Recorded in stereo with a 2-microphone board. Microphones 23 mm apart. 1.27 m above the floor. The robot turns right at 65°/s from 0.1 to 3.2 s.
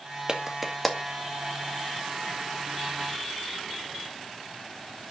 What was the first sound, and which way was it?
A clap, 35° right (ahead or behind).